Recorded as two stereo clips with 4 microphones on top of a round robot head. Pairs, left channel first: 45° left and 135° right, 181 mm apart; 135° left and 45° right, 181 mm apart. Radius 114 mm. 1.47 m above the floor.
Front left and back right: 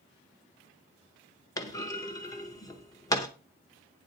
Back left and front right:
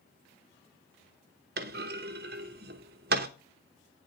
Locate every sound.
1.6 s a clunk: 20° right, 0.8 m